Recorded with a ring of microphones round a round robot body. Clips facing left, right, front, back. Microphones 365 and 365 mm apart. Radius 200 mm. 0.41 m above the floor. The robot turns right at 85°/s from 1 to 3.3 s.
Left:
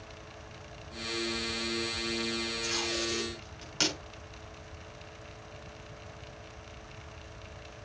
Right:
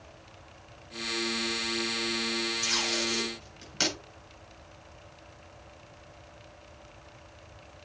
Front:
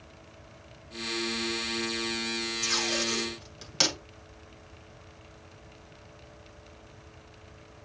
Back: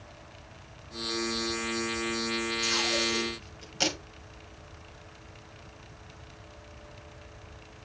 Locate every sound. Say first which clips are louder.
2.6 s tape being pulled: even, back 1 dB; 50° right, 5 m; by 4.0 s 10° left, 5 m